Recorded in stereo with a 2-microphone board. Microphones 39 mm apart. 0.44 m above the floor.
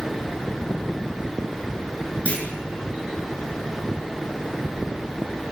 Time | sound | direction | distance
2.2 | a clunk | 40° left (ahead or behind) | 6 m